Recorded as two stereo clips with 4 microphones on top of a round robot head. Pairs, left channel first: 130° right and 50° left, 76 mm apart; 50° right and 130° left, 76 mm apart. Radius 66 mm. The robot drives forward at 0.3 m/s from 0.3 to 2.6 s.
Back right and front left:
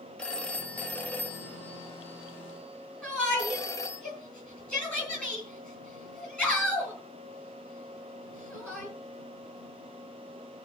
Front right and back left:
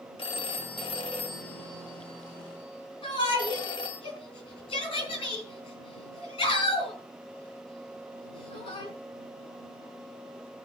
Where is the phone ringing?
55° right, 1.6 m; by 4.0 s 80° right, 1.3 m.